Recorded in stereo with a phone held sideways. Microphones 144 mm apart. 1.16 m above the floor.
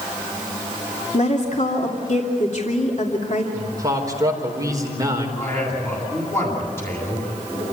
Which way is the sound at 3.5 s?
25° right (ahead or behind).